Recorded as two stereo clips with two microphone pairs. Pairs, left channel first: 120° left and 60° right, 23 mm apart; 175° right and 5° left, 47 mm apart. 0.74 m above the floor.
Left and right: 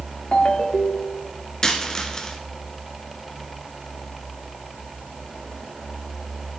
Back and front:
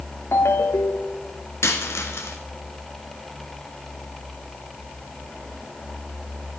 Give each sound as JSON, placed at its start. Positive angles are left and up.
{"t": 0.3, "sound": "a ringtone", "azimuth_deg": 165, "distance_m": 1.2}
{"t": 1.6, "sound": "a dropped coin", "azimuth_deg": 180, "distance_m": 1.6}